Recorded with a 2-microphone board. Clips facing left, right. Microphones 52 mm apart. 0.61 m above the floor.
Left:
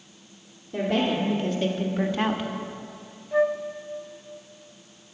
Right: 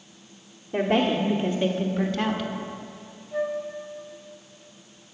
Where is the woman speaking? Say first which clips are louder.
Right 2 dB; 40° right (ahead or behind), 1.6 m; by 2.5 s 30° left (ahead or behind), 1.1 m.